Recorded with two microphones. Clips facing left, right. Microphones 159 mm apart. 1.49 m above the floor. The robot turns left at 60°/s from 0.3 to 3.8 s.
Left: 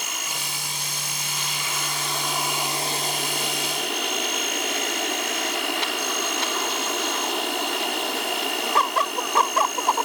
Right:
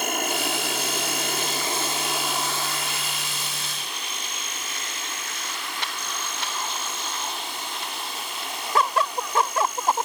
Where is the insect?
60° right; by 10.1 s 90° left.